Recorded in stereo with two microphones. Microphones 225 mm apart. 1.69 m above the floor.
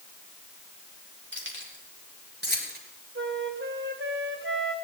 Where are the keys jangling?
60° right (ahead or behind), 4 m; by 2.8 s 45° right (ahead or behind), 4.5 m.